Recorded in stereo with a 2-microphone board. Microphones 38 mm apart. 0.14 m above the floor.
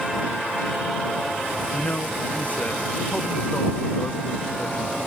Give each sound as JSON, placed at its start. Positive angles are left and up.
{"t": 1.7, "sound": "a man speaking", "side_deg": 40}